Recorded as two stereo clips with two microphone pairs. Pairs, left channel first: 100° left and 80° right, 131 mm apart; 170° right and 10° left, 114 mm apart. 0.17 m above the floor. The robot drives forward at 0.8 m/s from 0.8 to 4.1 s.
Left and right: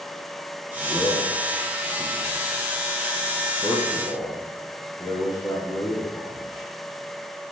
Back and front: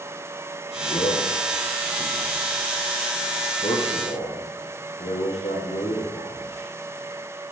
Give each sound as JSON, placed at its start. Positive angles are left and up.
{"t": 0.8, "sound": "a man speaking", "azimuth_deg": 165, "distance_m": 4.5}